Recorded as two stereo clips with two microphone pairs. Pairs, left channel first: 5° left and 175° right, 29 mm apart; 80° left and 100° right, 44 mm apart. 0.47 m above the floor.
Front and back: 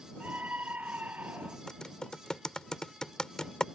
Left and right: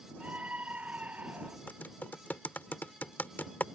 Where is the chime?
I don't hear a chime.